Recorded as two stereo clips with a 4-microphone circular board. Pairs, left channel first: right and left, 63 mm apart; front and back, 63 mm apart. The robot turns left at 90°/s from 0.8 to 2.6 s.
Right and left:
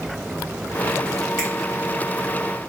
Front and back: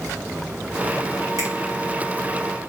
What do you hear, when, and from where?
1.4 s a finger snap: 165° right, 1.8 m; by 1.5 s 175° right, 1.8 m